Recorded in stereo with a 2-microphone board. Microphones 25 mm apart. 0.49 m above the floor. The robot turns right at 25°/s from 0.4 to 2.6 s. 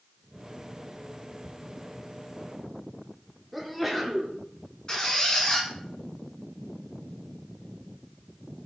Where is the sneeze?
Centre (ahead or behind), 1.4 m.